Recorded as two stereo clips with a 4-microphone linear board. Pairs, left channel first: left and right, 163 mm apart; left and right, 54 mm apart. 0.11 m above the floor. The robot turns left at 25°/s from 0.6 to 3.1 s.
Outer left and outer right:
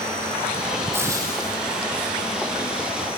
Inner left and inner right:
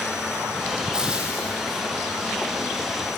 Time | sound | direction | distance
0.9 | frying | 15° right (ahead or behind) | 5 m